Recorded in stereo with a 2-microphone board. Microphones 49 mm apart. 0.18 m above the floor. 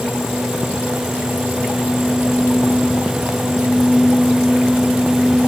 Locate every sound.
Only background noise.